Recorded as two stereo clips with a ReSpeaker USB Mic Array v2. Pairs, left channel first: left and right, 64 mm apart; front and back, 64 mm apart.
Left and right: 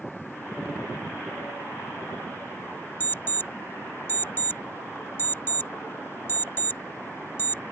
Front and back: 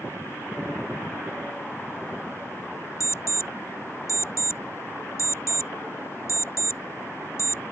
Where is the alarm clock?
35° left.